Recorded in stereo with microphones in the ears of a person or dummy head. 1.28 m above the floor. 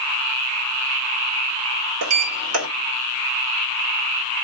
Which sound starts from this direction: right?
A sliding door, at 2.0 s.